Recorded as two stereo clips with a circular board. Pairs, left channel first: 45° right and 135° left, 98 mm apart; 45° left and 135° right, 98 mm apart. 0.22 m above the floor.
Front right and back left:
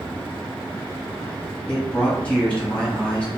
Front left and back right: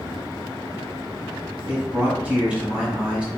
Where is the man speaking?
95° right, 1.3 m.